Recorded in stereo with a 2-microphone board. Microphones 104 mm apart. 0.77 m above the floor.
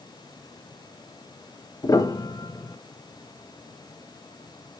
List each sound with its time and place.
1.8 s a piano: 40° left (ahead or behind), 0.5 m